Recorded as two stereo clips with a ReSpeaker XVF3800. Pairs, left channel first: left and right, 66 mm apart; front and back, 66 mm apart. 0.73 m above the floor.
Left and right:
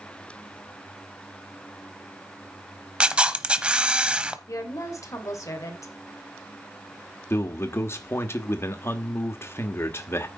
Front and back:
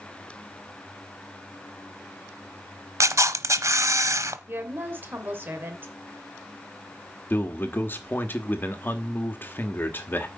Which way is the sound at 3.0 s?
155° right.